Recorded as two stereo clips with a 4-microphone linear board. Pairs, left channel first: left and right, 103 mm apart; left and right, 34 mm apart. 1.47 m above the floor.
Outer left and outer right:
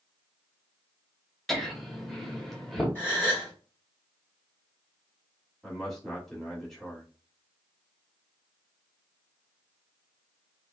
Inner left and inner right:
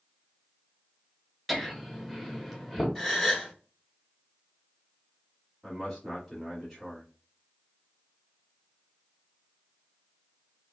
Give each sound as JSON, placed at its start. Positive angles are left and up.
{"t": 1.5, "sound": "laughter", "side_deg": 0, "distance_m": 0.9}
{"t": 3.0, "sound": "a gasp", "side_deg": 20, "distance_m": 1.5}
{"t": 5.6, "sound": "a man speaking", "side_deg": 5, "distance_m": 1.3}